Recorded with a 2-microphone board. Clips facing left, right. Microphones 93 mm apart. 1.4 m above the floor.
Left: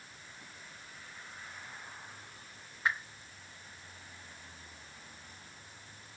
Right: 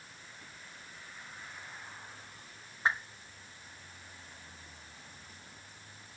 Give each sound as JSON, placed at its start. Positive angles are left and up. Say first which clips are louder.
{"t": 2.9, "sound": "a whoosh", "louder": "right 2 dB", "side_deg": -30, "distance_m": 0.8}